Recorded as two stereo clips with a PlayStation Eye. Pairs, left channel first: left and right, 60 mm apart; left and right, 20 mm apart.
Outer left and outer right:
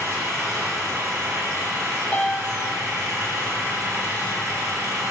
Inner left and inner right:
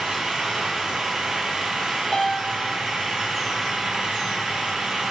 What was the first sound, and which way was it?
An engine running, 55° right (ahead or behind).